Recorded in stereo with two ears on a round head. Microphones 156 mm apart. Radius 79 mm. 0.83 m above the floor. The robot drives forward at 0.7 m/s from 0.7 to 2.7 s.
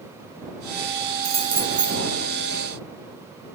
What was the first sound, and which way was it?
Keys jangling, 35° right (ahead or behind).